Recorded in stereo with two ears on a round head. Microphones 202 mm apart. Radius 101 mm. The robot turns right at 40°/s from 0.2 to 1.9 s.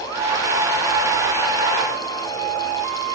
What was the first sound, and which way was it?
Only background noise.